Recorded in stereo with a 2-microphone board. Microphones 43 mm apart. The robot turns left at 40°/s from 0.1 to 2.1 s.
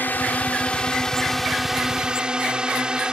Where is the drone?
55° left; by 3.1 s 25° right.